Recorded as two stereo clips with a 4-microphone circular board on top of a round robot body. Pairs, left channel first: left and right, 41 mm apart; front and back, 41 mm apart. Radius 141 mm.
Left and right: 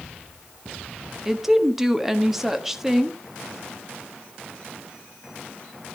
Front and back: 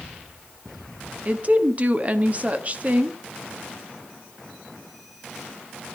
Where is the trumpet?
No trumpet in this recording.